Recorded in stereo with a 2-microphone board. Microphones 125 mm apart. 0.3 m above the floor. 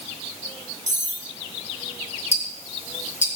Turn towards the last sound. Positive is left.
turn(degrees=65)  # may be behind; listen again after turning